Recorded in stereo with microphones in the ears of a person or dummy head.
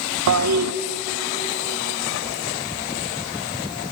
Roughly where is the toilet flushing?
Right.